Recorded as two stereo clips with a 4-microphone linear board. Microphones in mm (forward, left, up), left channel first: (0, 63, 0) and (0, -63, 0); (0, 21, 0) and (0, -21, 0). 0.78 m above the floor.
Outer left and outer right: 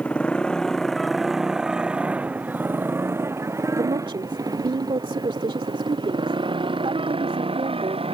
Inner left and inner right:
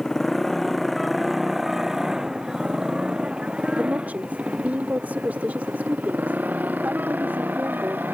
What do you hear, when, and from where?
0.0 s a motorcycle: 10° left (ahead or behind); by 8.2 s 50° right (ahead or behind)
3.7 s a woman speaking: 45° right (ahead or behind)